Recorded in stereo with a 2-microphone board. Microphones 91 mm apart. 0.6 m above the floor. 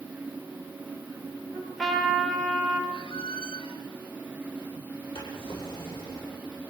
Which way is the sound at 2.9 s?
75° left (ahead or behind).